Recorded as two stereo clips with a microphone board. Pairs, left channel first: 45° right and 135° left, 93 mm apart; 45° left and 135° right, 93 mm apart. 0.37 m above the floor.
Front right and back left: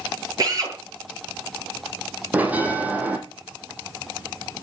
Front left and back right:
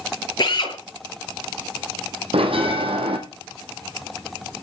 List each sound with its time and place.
0.4 s a drill: 85° left, 7.5 m
2.3 s a bell: 155° right, 3 m